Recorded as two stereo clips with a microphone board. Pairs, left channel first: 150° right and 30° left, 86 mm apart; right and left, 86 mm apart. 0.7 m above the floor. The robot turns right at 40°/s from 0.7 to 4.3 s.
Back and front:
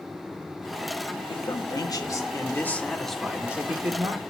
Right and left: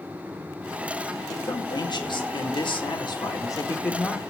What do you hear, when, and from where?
1.3 s a man speaking: 135° right, 2 m; by 4.2 s 20° right, 2 m